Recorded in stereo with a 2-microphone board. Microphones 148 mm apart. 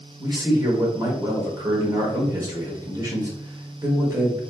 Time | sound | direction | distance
0.2 | a man speaking | 25° right (ahead or behind) | 0.8 m